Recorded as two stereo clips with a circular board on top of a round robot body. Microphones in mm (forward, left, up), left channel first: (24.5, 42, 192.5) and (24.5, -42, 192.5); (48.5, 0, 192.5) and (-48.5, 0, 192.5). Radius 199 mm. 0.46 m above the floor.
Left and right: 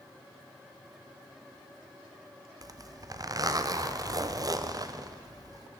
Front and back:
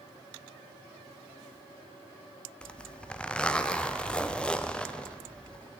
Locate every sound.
2.6 s a zipper: 75° right, 0.6 m